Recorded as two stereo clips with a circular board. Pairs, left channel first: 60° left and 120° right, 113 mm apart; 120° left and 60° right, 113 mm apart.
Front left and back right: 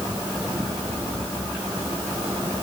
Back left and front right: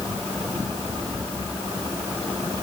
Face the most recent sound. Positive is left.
No sound to turn to.